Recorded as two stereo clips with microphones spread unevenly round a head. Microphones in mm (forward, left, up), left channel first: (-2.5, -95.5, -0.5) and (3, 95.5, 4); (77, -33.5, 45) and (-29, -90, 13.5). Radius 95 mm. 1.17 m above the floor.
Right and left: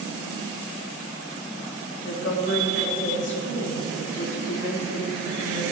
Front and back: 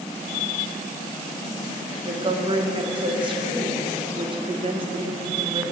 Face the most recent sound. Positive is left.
turn(degrees=-120)